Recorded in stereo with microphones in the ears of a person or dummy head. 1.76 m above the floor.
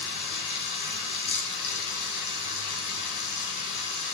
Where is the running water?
65° left (ahead or behind), 3.5 m.